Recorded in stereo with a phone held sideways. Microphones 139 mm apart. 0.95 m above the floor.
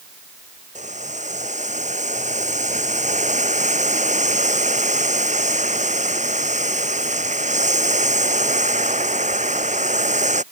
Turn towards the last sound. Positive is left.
turn(degrees=-55)  # may be behind; listen again after turning